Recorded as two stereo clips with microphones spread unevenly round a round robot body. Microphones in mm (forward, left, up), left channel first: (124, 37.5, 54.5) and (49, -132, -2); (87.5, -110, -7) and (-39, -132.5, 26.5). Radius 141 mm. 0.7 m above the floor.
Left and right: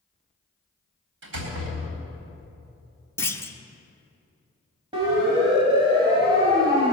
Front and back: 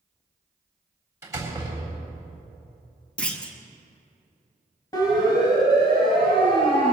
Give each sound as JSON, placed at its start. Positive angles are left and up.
{"t": 1.2, "sound": "a door slam", "azimuth_deg": -100, "distance_m": 3.5}
{"t": 3.2, "sound": "a clunk", "azimuth_deg": -30, "distance_m": 1.2}
{"t": 4.9, "sound": "a siren", "azimuth_deg": -50, "distance_m": 5.0}